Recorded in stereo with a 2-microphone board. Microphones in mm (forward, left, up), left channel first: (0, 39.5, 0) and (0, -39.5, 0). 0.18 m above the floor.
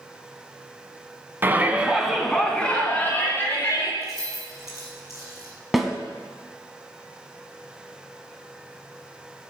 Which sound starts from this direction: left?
Keys jangling, at 4.0 s.